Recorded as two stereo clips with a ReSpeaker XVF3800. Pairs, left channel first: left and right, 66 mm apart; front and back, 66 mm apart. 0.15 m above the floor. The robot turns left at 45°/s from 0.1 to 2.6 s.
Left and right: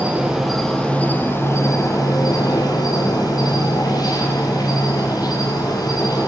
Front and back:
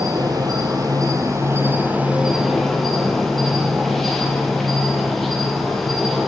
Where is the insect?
160° right, 1.7 m; by 6.3 s 85° left, 1.7 m.